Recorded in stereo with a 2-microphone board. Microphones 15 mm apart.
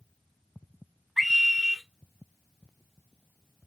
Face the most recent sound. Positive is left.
turn(degrees=10)  # may be behind; listen again after turning